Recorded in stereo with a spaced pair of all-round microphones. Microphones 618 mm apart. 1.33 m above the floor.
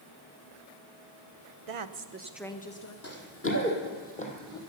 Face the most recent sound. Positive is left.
turn(degrees=5)  # may be behind; listen again after turning